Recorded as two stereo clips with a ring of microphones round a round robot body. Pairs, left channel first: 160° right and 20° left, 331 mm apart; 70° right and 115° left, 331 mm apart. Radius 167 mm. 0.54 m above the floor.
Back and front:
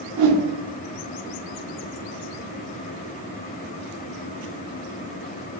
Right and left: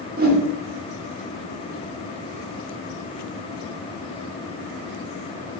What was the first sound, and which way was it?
A whoosh, 50° left.